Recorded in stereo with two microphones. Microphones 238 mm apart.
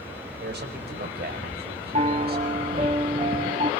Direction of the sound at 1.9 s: 30° right (ahead or behind).